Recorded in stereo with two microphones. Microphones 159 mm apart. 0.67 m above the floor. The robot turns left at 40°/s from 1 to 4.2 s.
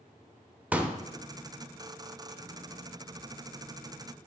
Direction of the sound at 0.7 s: 10° right (ahead or behind).